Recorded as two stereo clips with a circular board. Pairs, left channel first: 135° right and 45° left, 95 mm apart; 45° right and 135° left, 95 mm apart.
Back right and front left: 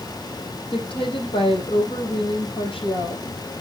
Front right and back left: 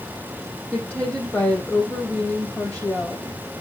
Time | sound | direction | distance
0.7 | a woman speaking | 120° right | 3.5 m